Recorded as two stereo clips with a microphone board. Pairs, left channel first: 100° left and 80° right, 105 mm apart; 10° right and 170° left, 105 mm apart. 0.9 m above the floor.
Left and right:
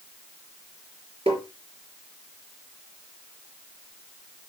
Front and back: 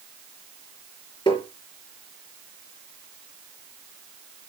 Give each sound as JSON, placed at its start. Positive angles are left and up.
{"t": 1.3, "sound": "tapping", "azimuth_deg": -55, "distance_m": 3.5}